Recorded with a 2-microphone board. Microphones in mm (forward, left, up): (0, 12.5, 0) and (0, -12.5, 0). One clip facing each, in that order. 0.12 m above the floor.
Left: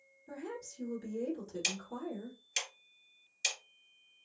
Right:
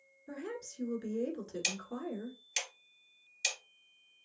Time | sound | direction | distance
0.3 | a woman speaking | 30° right (ahead or behind) | 1.2 m
1.6 | ticking | centre (ahead or behind) | 2 m